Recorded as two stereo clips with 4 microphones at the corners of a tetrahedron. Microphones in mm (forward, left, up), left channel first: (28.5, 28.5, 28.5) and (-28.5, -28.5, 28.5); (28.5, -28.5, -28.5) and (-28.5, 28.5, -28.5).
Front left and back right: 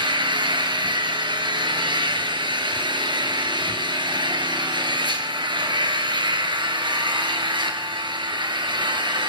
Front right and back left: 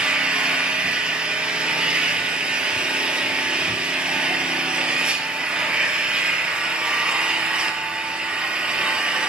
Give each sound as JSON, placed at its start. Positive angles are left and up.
{"t": 0.0, "sound": "an engine running", "azimuth_deg": -150, "distance_m": 2.5}